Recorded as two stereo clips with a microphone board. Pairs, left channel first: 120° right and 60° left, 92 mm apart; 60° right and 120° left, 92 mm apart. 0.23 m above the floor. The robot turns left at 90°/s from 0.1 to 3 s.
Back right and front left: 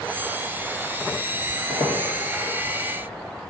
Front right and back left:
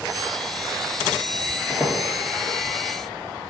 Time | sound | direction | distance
1.7 | a squeak | 150° right | 1.5 m